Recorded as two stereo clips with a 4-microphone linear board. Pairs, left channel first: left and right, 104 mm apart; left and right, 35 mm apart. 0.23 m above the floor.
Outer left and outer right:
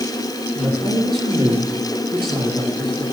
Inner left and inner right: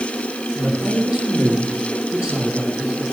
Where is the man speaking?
55° right (ahead or behind), 3.5 m.